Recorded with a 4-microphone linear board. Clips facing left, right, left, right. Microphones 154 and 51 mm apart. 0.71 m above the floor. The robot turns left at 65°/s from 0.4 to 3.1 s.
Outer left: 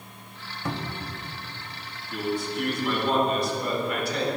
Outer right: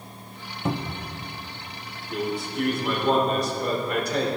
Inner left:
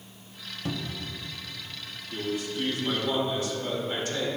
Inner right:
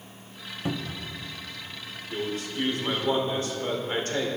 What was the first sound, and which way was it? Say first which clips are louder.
A cupboard door: outer right 4 dB, inner right 2 dB; 25° right.